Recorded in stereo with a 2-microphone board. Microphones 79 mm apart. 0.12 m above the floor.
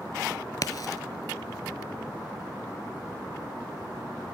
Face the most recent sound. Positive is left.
turn(degrees=55)  # may be behind; listen again after turning